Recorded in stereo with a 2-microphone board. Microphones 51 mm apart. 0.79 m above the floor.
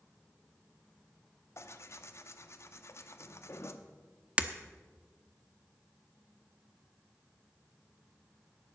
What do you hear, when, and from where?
1.6 s tearing paper: 60° left (ahead or behind), 0.7 m
4.4 s breaking glass: 25° right (ahead or behind), 0.6 m